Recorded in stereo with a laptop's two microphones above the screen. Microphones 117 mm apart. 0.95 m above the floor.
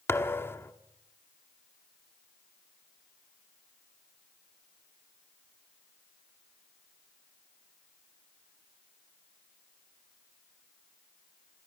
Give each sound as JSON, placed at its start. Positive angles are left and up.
{"t": 0.1, "sound": "a thud", "side_deg": 20, "distance_m": 1.0}